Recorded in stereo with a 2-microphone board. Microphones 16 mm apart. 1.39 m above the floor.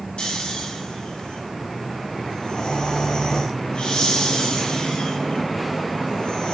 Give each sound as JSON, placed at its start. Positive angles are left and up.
{"t": 0.2, "sound": "snoring", "side_deg": 80, "distance_m": 2.5}